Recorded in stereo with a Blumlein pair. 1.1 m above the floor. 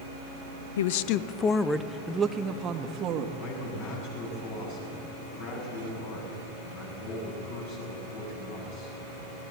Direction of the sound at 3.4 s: 50° left.